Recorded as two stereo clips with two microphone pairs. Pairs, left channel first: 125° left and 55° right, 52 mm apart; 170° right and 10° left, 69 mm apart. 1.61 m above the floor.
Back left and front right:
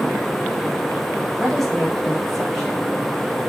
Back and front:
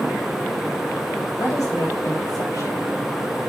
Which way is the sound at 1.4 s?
145° right.